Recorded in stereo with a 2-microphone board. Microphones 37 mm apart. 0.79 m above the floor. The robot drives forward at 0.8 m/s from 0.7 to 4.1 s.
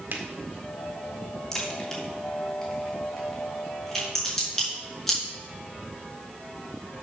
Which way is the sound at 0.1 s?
65° right (ahead or behind).